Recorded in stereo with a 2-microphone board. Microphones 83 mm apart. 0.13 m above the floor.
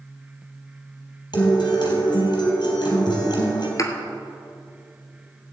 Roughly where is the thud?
Left.